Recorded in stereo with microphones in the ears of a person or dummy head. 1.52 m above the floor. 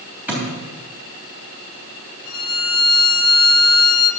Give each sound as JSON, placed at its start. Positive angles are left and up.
{"t": 0.3, "sound": "a thud", "side_deg": -10, "distance_m": 3.5}
{"t": 2.2, "sound": "a violin", "side_deg": 65, "distance_m": 4.0}